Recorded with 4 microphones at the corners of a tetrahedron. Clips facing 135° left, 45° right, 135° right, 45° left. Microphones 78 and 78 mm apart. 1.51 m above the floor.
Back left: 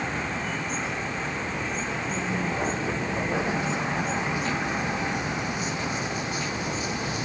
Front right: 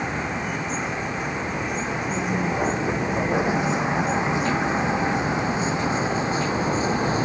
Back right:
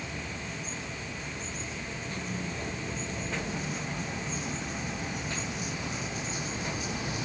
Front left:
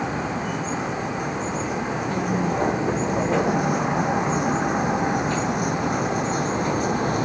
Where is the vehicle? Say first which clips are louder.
Front right 3 dB, front left 13 dB; 30° left; by 7.2 s 10° left.